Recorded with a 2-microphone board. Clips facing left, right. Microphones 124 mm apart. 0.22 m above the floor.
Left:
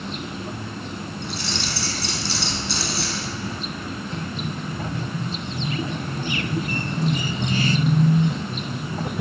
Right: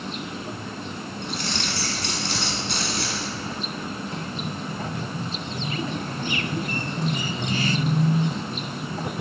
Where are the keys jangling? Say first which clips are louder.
Right 2 dB; 55° right (ahead or behind), 1.7 m.